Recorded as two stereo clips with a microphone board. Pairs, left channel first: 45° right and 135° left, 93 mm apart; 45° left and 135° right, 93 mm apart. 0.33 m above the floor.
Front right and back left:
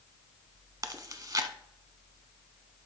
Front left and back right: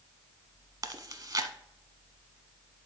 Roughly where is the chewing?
Behind.